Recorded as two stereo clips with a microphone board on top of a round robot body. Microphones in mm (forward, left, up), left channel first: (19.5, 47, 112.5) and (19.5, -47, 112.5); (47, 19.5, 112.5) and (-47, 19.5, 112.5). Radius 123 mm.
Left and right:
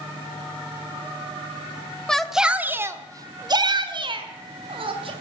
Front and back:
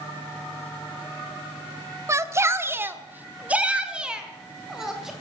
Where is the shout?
170° left, 1.3 m; by 5.1 s 95° right, 3 m.